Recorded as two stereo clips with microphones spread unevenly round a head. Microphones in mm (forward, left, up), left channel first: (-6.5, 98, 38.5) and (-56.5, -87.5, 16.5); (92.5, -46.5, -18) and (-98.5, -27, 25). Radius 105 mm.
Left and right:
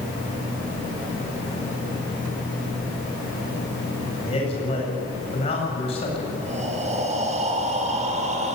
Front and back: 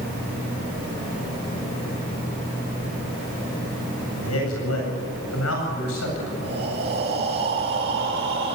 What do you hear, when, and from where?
4.2 s a man speaking: 15° left, 8.5 m
6.4 s breathing: 155° right, 3.5 m